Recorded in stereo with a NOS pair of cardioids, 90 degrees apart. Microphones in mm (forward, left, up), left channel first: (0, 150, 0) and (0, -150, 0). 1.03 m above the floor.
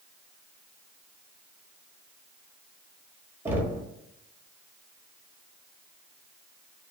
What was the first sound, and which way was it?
Knocking, 10° right.